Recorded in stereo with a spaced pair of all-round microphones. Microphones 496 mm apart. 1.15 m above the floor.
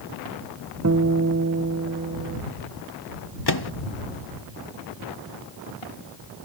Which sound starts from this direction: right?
A guitar, at 0.8 s.